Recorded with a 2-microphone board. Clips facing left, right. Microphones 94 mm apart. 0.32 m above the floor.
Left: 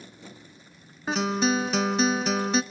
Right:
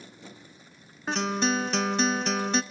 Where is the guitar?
Centre (ahead or behind), 0.5 m.